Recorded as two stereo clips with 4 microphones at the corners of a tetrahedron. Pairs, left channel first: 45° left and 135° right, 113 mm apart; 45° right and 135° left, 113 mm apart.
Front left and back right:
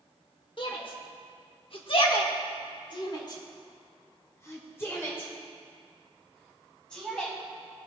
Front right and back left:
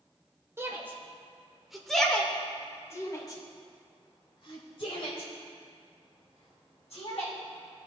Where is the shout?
75° left, 1.5 m; by 7.3 s 35° right, 3 m.